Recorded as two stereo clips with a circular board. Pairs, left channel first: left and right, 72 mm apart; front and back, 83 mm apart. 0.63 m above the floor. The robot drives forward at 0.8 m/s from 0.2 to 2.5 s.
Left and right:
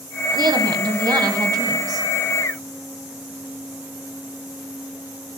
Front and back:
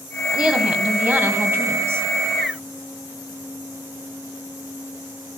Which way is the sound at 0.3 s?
100° right.